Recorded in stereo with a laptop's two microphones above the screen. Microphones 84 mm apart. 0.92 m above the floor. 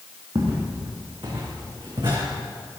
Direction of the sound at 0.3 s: 75° right (ahead or behind).